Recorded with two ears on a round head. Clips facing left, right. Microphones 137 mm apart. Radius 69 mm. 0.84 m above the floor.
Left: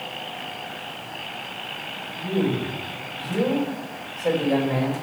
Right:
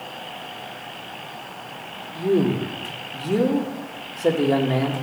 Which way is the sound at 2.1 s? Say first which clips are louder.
Right 4 dB; 70° right (ahead or behind).